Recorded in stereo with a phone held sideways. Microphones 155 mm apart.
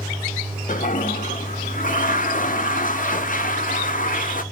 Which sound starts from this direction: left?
A toilet flushing, at 0.7 s.